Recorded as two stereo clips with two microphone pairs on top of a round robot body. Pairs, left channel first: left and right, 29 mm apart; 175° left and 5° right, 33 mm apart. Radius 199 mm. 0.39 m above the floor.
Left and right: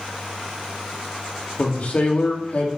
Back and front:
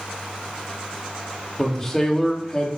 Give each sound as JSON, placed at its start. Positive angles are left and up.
{"t": 1.6, "sound": "a man speaking", "azimuth_deg": 90, "distance_m": 2.0}